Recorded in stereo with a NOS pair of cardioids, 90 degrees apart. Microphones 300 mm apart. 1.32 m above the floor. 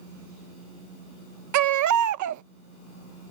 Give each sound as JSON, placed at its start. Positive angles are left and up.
{"t": 1.5, "sound": "a baby crying", "azimuth_deg": -65}